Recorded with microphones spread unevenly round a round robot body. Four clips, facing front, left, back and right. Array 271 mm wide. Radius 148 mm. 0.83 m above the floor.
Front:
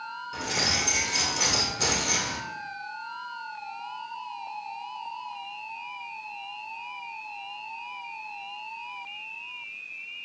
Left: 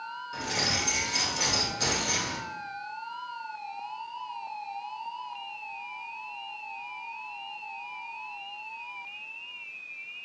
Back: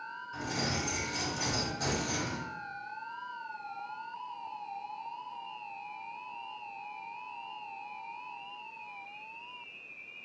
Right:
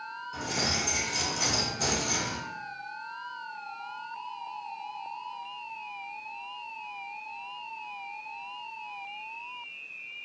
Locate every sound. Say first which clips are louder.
0.3 s keys jangling: even, front 3 dB; 15° left, 2 m